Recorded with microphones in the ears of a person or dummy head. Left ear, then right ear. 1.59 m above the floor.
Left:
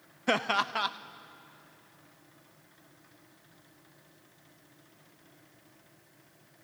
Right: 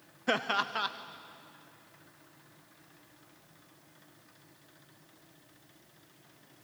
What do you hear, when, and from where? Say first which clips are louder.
0.3 s laughter: left 2 dB; 20° left (ahead or behind), 0.7 m